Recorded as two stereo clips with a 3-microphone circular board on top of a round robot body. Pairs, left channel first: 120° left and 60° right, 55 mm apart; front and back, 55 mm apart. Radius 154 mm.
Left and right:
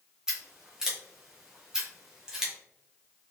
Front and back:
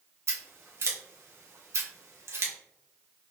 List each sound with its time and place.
0.3 s scissors: 140° right, 1.1 m